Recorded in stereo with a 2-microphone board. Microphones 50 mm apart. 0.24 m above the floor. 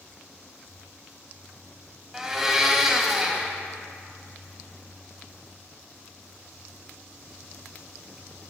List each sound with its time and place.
2.1 s a blender: 10° right (ahead or behind), 0.6 m